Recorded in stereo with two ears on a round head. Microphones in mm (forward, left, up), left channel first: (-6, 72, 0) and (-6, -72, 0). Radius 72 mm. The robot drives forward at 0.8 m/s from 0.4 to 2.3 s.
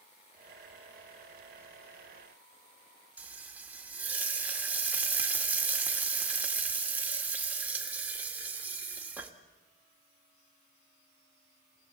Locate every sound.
3.2 s frying: 10° right (ahead or behind), 2 m